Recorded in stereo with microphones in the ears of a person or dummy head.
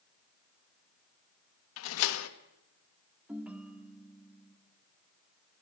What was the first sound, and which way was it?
A door slam, 80° left.